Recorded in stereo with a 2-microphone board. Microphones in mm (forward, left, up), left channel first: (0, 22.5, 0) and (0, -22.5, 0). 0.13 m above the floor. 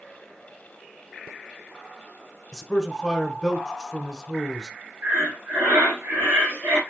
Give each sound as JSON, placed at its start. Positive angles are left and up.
{"t": 2.5, "sound": "a man speaking", "side_deg": 10, "distance_m": 1.2}
{"t": 5.0, "sound": "breathing", "side_deg": -55, "distance_m": 2.5}